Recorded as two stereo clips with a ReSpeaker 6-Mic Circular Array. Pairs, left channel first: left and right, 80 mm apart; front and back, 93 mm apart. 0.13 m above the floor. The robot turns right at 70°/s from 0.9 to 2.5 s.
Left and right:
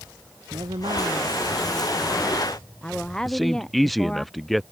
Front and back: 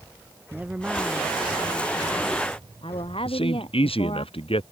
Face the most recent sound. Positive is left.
turn(degrees=0)